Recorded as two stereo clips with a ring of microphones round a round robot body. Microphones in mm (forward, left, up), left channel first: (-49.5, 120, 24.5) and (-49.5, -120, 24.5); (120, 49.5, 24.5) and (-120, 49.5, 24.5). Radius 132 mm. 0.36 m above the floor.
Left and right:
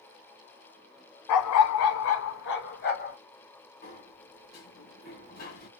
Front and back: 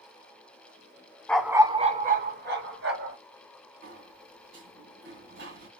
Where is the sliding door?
140° left, 1.6 m.